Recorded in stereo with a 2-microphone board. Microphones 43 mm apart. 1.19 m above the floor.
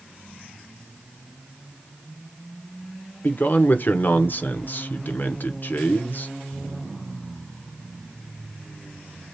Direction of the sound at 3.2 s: 50° left (ahead or behind).